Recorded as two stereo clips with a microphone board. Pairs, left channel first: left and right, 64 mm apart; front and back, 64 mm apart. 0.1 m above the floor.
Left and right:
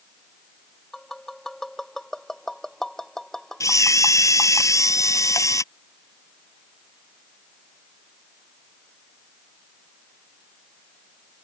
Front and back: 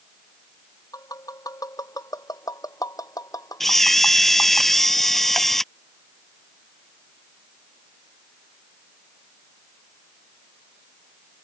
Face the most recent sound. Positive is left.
turn(degrees=85)